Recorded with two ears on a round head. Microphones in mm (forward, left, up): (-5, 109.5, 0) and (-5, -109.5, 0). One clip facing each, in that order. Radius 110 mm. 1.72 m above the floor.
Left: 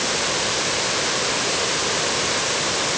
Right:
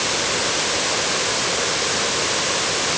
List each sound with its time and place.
Only background noise.